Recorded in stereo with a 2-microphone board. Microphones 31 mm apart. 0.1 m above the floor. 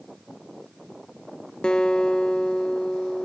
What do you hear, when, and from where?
1.6 s a guitar: 35° left (ahead or behind), 0.6 m